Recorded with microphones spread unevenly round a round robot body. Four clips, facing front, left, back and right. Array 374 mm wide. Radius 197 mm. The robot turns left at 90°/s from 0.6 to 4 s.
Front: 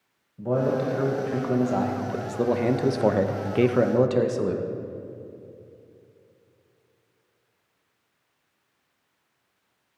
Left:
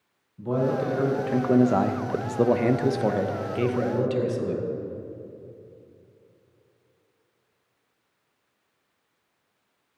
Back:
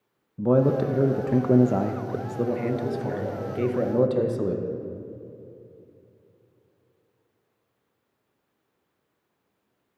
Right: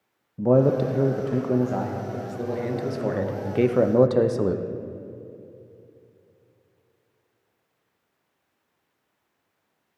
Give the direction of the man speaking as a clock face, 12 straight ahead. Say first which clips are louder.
Right 6 dB, back 3 dB; 4 o'clock.